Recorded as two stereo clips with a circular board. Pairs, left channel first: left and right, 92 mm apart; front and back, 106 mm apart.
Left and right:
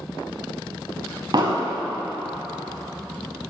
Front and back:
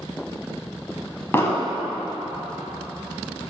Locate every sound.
1.3 s an explosion: 65° right, 0.5 m